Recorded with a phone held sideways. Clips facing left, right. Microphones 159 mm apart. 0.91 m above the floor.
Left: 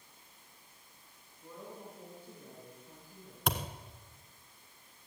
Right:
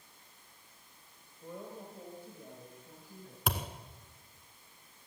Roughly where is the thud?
Centre.